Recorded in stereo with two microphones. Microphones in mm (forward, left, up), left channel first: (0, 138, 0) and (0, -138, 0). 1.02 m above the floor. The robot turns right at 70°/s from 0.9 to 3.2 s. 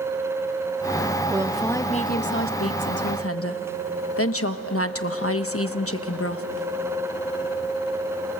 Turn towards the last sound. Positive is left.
turn(degrees=115)